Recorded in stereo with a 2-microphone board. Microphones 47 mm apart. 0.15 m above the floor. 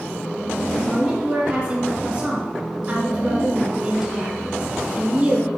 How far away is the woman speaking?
About 1.5 m.